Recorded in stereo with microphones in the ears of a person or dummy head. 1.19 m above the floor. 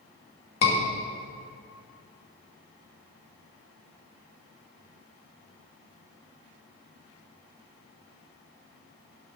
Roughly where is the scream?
Left.